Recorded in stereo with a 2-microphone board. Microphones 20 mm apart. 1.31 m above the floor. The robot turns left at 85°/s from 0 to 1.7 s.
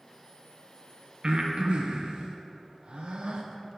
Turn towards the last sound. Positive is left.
turn(degrees=-55)  # may be behind; listen again after turning